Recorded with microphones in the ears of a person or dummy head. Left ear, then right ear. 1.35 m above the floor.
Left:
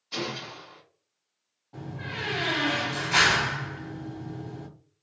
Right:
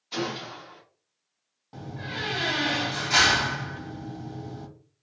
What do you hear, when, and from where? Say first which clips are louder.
0.1 s a gunshot: right 1 dB; 10° right (ahead or behind), 0.9 m
1.7 s a door slam: right 1 dB; 80° right, 1.0 m